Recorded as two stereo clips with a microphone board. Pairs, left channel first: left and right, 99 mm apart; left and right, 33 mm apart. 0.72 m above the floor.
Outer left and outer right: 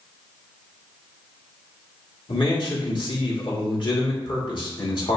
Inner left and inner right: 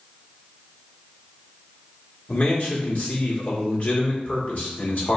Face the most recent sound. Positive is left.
turn(degrees=55)  # may be behind; listen again after turning